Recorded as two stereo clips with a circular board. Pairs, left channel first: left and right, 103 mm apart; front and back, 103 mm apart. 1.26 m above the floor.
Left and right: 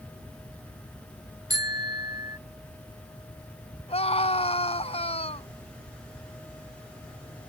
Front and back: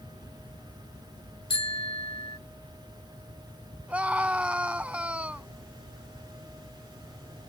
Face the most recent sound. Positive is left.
turn(degrees=105)